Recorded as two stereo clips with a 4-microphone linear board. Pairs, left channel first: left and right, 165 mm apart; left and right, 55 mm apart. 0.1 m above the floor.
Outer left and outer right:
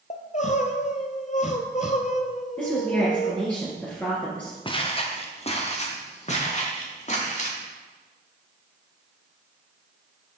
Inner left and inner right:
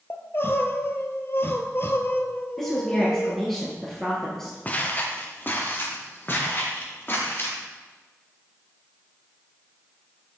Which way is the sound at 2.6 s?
10° left (ahead or behind).